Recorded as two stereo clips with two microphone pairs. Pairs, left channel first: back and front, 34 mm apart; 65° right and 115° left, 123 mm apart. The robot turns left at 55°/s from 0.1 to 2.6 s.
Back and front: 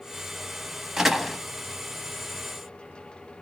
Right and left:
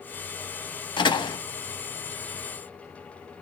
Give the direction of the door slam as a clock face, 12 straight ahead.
2 o'clock.